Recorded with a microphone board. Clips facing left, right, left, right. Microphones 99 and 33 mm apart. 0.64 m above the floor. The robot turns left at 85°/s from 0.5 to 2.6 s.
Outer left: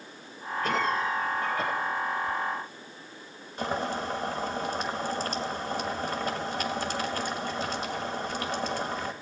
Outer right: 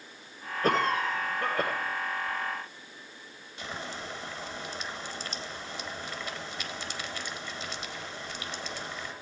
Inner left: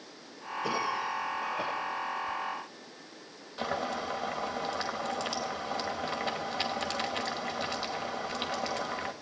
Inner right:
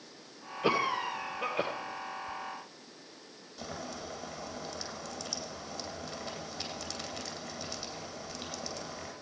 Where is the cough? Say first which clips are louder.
Outer right 1 dB, inner right 2 dB; 40° right, 2.5 m; by 1.7 s 135° right, 2.5 m.